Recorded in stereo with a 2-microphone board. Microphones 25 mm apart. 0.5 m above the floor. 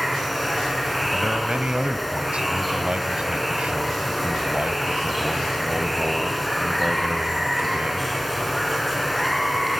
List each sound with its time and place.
0.0 s running water: 5° right (ahead or behind), 4.5 m
1.1 s a man speaking: 50° right (ahead or behind), 2.5 m